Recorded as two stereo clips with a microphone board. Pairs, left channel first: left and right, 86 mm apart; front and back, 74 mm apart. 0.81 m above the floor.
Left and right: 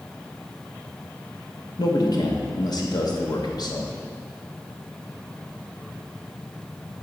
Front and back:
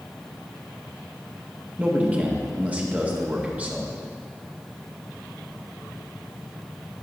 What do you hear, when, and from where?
1.8 s a man speaking: 115° left, 1.1 m